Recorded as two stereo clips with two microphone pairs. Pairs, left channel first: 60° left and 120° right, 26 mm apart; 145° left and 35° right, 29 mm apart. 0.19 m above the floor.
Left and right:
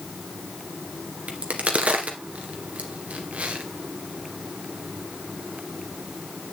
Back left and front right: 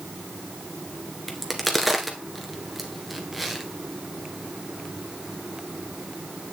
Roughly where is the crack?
Behind right.